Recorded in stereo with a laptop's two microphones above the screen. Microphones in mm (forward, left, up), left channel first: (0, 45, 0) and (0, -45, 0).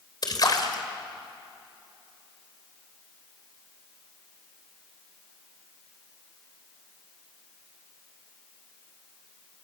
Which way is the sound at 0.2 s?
45° left (ahead or behind).